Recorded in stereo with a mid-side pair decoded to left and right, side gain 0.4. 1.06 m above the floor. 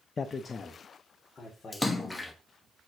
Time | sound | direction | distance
0.2 | a man speaking | 40° left | 0.6 m
1.7 | a splash | 20° left | 1.2 m